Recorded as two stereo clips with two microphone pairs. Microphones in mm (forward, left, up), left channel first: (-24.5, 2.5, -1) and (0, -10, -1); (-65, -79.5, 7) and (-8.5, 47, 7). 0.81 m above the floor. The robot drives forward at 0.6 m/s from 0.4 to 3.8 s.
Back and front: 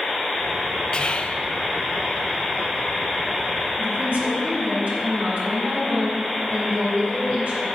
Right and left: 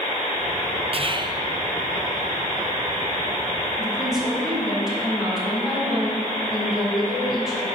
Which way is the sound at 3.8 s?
20° right.